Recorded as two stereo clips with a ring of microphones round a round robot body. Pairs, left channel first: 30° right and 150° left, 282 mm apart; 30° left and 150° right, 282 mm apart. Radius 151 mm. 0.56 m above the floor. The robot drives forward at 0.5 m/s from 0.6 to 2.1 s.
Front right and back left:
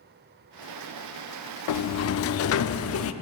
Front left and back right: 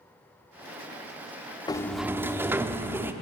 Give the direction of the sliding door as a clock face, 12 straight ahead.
2 o'clock.